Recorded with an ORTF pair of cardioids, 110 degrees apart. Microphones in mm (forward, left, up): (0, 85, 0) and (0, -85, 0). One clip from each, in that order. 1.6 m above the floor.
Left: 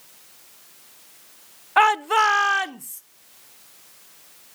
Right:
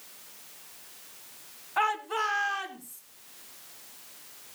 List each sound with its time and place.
1.8 s a shout: 55° left, 0.6 m; by 3.0 s 70° left, 1.3 m